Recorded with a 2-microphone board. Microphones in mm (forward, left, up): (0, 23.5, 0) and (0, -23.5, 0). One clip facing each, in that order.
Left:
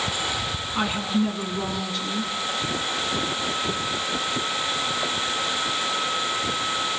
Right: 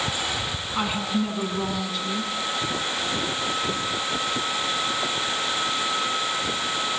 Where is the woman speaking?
5° right (ahead or behind), 9 m.